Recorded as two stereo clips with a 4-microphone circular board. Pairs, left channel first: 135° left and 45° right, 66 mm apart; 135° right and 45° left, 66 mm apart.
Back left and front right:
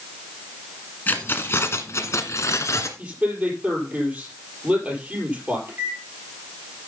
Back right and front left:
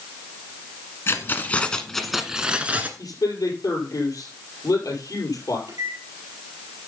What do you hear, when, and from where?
1.1 s keys jangling: 170° right, 1.3 m; by 2.9 s 105° left, 1.5 m
3.0 s a man speaking: 115° right, 4.5 m
5.7 s a microwave: 15° left, 4 m